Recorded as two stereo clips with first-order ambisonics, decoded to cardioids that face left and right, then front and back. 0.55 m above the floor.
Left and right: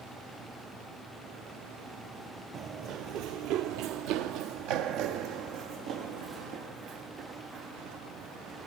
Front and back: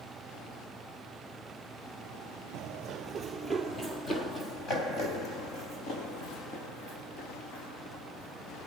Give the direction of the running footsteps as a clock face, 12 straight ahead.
5 o'clock.